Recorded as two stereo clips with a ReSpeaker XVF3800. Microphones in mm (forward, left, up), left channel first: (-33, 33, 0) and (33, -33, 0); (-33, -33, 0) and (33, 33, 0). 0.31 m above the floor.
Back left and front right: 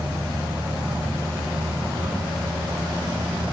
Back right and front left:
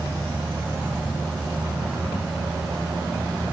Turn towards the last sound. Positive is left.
No sound to turn to.